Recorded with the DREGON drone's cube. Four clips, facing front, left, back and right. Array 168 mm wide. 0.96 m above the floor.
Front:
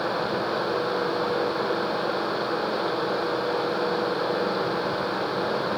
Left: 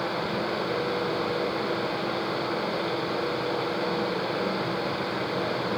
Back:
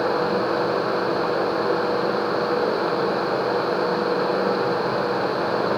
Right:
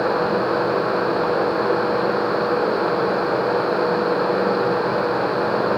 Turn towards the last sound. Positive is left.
No sound to turn to.